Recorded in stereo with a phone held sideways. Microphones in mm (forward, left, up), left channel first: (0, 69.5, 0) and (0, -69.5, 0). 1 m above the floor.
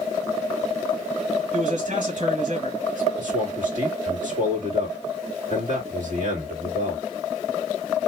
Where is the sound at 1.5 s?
60° right (ahead or behind), 2 m.